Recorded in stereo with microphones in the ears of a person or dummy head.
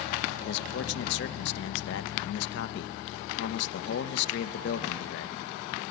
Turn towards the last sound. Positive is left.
turn(degrees=65)  # may be behind; listen again after turning